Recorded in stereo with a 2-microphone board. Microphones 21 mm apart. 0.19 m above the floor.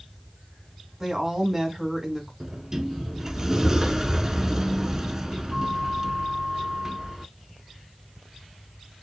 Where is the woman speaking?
20° right (ahead or behind), 1.5 m.